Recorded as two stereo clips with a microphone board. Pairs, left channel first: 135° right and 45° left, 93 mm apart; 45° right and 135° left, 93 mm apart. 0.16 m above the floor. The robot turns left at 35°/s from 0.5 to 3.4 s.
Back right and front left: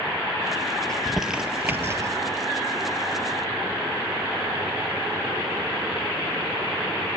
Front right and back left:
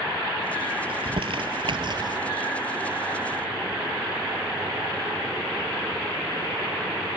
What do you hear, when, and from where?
0.9 s crumpling: 140° left, 1.0 m; by 2.2 s 95° left, 1.0 m